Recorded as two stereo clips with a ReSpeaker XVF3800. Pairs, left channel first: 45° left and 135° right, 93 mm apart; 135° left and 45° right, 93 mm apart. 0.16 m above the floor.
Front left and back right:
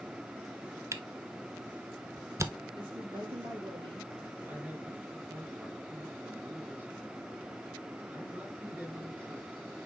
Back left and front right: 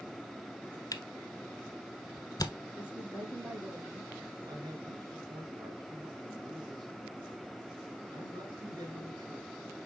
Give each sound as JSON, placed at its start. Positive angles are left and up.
{"t": 0.9, "sound": "a camera shutter", "azimuth_deg": 175, "distance_m": 0.6}
{"t": 2.7, "sound": "a woman speaking", "azimuth_deg": -125, "distance_m": 4.5}
{"t": 4.4, "sound": "a man speaking", "azimuth_deg": -70, "distance_m": 3.0}